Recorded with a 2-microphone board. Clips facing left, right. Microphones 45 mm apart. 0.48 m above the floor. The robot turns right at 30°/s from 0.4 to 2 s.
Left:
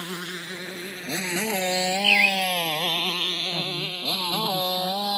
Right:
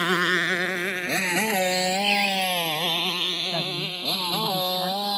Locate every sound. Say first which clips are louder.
0.0 s a motorcycle: right 12 dB; 80° right; by 5.2 s 5° left (ahead or behind)
2.0 s a bird: left 7 dB; 45° left (ahead or behind)
3.5 s a woman speaking: right 1 dB; 45° right (ahead or behind)